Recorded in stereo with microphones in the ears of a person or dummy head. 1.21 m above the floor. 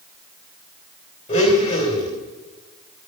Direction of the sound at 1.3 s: 30° left (ahead or behind).